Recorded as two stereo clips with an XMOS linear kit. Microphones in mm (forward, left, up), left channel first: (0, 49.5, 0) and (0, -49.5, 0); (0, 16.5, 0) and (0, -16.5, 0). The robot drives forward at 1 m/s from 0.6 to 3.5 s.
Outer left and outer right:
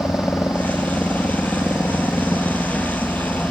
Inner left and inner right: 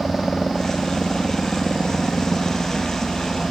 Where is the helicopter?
25° left (ahead or behind); by 3.5 s 20° left (ahead or behind).